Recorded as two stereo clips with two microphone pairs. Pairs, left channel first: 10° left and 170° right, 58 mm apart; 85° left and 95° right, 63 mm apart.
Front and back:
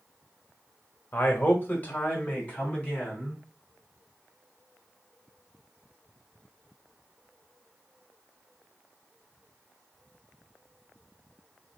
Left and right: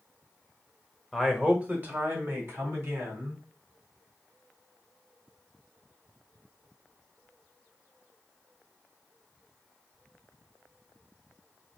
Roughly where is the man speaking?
Ahead.